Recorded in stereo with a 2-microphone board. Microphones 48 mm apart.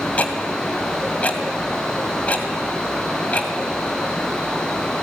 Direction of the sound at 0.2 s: 30° left (ahead or behind).